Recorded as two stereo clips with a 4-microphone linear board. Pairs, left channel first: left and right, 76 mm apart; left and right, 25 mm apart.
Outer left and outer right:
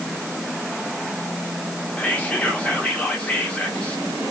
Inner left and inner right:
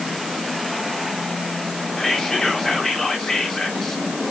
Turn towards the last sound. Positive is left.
turn(degrees=20)  # may be behind; listen again after turning